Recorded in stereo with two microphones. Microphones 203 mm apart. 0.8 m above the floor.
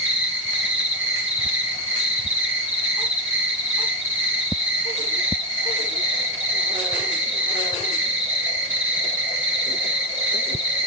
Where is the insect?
75° right (ahead or behind), 2.5 m.